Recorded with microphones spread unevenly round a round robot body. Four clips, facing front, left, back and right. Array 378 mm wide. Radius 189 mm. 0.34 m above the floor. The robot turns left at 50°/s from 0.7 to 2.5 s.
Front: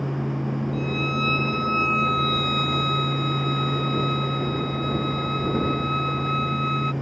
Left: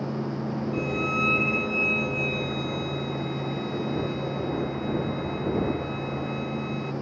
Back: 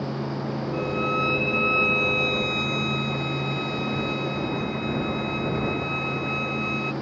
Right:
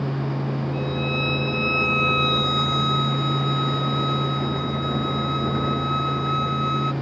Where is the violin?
35° left; by 6.9 s 55° right.